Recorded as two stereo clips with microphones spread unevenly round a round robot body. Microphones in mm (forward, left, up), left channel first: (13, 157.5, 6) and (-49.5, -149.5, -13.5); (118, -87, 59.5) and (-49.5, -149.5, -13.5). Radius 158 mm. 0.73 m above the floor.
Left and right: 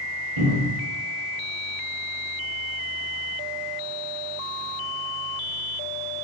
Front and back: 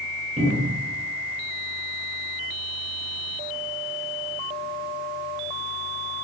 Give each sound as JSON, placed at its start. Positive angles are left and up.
{"t": 0.4, "sound": "a cupboard door", "azimuth_deg": -100, "distance_m": 1.0}